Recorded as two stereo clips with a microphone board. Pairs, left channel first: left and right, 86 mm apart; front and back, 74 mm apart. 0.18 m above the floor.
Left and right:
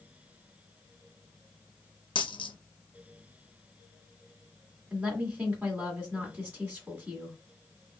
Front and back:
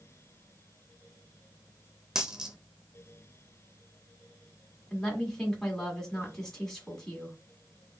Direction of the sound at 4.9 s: 70° right.